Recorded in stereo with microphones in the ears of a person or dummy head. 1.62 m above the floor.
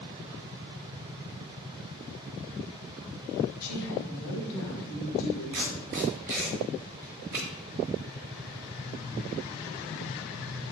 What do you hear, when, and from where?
3.6 s a woman speaking: 70° left (ahead or behind), 1.5 m; by 5.4 s 80° left, 3 m
5.5 s tape being pulled: 15° right (ahead or behind), 1.5 m